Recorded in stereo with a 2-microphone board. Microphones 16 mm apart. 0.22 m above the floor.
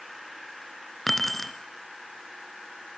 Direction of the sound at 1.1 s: 10° left (ahead or behind).